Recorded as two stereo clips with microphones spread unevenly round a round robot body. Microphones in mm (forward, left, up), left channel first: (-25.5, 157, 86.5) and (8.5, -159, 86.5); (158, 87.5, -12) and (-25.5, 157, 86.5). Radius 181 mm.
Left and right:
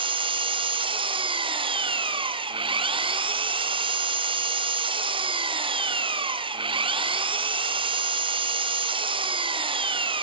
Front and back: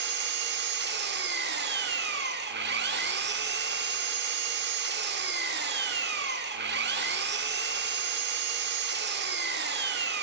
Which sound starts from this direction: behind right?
An engine running, at 0.0 s.